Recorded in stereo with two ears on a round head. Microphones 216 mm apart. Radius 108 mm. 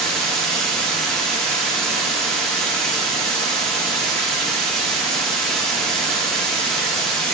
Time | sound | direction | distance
0.0 | running water | centre (ahead or behind) | 1.0 m